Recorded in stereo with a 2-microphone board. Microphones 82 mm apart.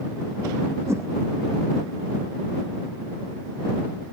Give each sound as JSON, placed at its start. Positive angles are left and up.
{"t": 0.9, "sound": "a whoosh", "side_deg": -35}